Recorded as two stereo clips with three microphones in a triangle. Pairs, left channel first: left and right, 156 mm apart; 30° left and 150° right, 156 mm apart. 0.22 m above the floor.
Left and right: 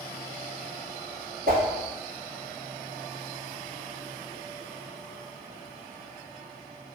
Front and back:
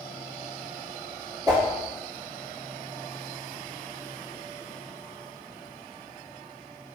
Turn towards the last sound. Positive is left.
turn(degrees=-85)